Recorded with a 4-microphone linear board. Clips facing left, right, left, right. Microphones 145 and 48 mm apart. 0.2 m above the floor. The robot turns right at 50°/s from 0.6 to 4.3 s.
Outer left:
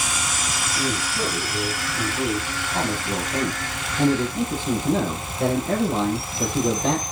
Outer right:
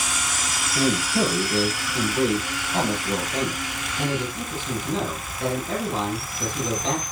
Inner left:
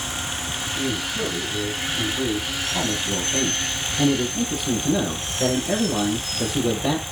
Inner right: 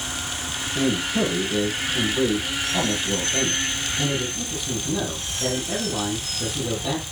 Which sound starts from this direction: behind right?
A man speaking, at 0.8 s.